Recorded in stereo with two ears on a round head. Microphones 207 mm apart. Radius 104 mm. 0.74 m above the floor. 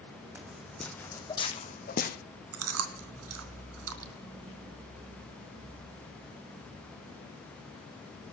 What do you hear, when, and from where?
0.3 s footsteps: 10° right (ahead or behind), 2.5 m; by 2.2 s 45° left (ahead or behind), 2.5 m
2.5 s chewing: 70° right (ahead or behind), 2.5 m